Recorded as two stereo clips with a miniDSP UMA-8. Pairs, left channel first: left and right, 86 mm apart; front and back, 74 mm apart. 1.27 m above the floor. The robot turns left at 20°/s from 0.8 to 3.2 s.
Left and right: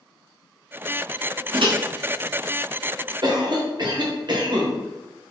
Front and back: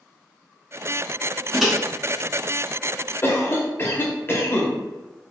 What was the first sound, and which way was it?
A microwave, 90° right.